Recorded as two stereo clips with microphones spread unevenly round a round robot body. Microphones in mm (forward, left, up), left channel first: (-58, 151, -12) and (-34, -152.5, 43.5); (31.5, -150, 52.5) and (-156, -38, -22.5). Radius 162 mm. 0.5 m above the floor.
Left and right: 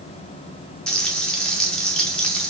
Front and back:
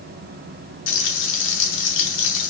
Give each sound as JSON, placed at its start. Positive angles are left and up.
{"t": 0.9, "sound": "frying", "azimuth_deg": 15, "distance_m": 0.7}